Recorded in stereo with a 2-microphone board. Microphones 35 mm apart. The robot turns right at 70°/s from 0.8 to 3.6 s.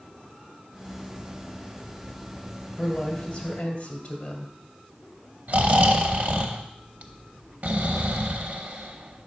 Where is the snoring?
55° right (ahead or behind), 0.7 m.